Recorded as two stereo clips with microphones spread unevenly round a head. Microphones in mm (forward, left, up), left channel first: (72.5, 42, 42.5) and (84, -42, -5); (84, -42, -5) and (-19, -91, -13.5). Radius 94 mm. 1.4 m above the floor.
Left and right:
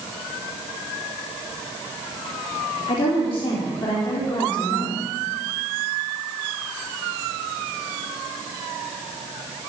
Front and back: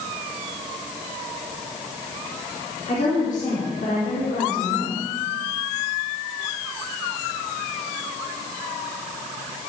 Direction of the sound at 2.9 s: 80° left.